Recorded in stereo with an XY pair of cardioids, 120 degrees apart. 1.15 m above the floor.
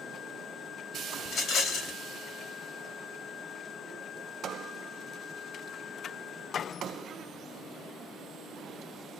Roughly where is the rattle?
Left.